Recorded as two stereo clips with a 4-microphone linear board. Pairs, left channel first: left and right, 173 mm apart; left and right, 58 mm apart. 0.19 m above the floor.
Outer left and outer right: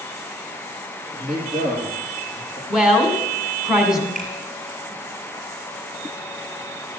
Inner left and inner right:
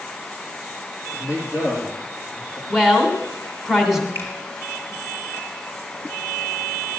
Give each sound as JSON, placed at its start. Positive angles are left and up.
{"t": 1.1, "sound": "a man speaking", "side_deg": -50, "distance_m": 6.5}
{"t": 2.7, "sound": "a woman speaking", "side_deg": -5, "distance_m": 2.0}
{"t": 4.2, "sound": "a finger snap", "side_deg": -50, "distance_m": 3.5}